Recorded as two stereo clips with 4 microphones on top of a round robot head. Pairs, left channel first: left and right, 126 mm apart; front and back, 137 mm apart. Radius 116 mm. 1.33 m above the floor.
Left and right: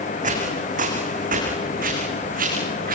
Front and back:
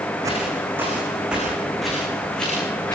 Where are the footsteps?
105° right, 6 m; by 3.0 s 85° right, 8.5 m.